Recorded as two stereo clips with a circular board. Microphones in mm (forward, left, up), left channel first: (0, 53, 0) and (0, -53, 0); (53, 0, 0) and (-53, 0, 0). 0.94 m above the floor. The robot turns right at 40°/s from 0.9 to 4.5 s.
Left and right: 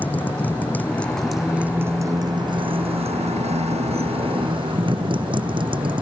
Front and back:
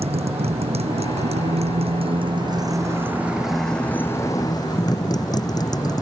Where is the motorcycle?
165° left; by 6.0 s 50° right.